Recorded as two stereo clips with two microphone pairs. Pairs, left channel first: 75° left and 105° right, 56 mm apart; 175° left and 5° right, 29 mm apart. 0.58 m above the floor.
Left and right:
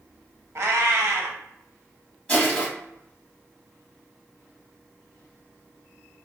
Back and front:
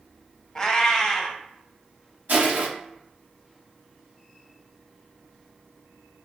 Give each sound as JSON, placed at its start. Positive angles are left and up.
{"t": 0.6, "sound": "a cat meowing", "azimuth_deg": -120, "distance_m": 0.6}
{"t": 2.3, "sound": "crushing", "azimuth_deg": 10, "distance_m": 1.6}